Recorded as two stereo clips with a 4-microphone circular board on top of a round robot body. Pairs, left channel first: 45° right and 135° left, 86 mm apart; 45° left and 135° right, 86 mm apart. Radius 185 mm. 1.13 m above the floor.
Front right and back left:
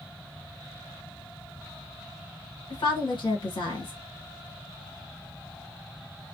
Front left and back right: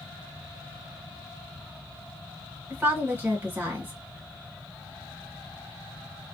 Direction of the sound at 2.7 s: 70° right.